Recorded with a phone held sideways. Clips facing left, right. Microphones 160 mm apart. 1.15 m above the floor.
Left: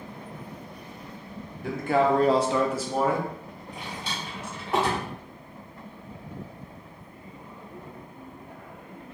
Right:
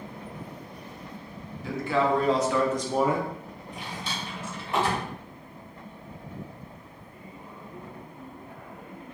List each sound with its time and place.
1.6 s a man speaking: 55° left (ahead or behind), 1.0 m; by 3.3 s 25° right (ahead or behind), 0.7 m
3.7 s a drawer: 65° left (ahead or behind), 1.7 m